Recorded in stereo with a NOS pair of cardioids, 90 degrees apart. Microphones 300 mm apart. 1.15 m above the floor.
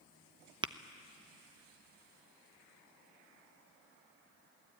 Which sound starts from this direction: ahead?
Tapping, at 0.6 s.